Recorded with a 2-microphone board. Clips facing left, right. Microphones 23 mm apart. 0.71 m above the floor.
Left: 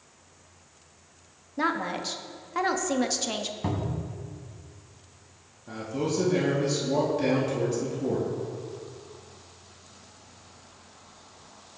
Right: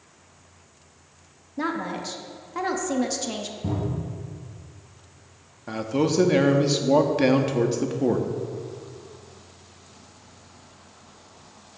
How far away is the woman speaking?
About 0.9 m.